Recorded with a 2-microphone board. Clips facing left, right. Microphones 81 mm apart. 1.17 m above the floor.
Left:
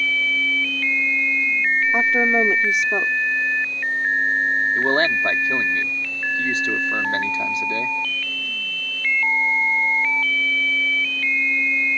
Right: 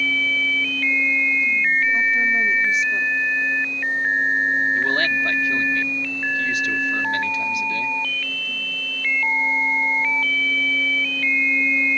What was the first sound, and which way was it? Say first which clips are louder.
A woman speaking: left 2 dB; 70° left (ahead or behind).